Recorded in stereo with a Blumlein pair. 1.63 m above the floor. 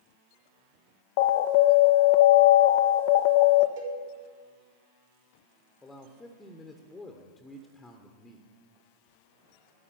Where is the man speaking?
10° left, 1.2 m.